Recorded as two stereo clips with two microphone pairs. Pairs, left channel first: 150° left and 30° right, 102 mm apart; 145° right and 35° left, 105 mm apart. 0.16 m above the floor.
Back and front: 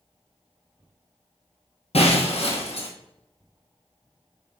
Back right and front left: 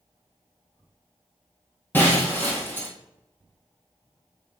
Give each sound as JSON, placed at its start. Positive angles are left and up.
{"t": 1.9, "sound": "breaking glass", "azimuth_deg": 145, "distance_m": 2.0}